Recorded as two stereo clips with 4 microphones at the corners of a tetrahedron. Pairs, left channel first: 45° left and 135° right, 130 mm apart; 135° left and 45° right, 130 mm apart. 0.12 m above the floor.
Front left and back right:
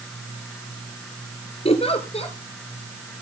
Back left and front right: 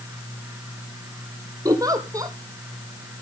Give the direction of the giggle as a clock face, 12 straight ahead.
12 o'clock.